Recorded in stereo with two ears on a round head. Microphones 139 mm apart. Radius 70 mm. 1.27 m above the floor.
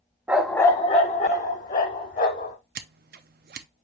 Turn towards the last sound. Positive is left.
turn(degrees=-65)  # may be behind; listen again after turning